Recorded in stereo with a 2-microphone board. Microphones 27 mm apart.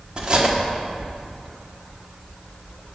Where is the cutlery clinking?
35° right (ahead or behind), 1.3 m.